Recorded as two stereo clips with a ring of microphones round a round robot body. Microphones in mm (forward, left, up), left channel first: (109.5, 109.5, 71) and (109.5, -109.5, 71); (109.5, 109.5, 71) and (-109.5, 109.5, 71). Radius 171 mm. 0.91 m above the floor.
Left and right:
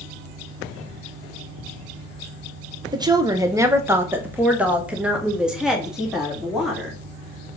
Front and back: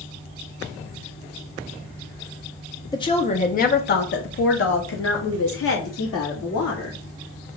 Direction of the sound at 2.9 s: 45° right.